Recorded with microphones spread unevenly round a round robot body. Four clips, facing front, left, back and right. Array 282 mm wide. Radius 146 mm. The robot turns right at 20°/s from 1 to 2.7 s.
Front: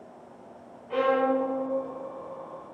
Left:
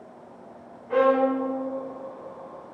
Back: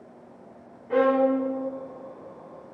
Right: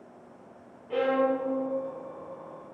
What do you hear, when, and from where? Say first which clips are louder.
0.9 s a violin: left 5 dB, back 3 dB; 170° left, 0.7 m; by 1.5 s straight behind, 0.7 m